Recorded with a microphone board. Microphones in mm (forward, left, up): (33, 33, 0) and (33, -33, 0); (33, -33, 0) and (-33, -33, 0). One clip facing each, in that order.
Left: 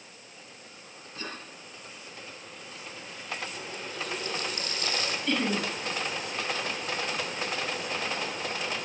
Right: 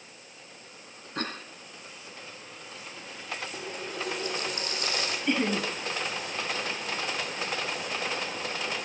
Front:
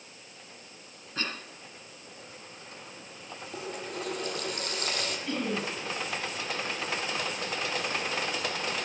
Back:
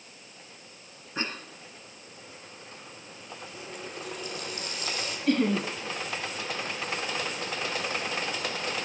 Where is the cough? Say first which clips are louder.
Right 5 dB, back 2 dB; 105° right, 3 m.